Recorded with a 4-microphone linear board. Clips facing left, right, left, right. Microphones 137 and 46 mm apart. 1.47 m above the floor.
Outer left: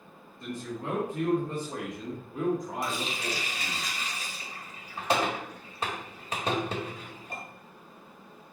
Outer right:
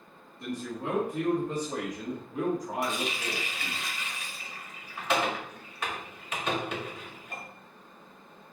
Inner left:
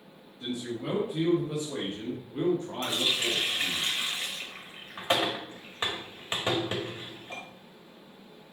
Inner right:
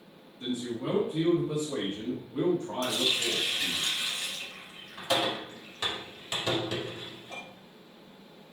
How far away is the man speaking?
About 2.5 m.